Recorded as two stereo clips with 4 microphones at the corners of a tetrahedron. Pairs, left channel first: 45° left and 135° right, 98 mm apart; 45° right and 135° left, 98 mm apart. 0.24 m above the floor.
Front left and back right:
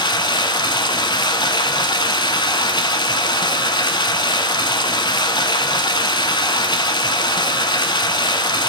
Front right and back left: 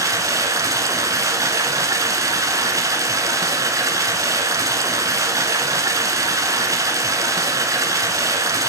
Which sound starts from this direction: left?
Running water, at 0.0 s.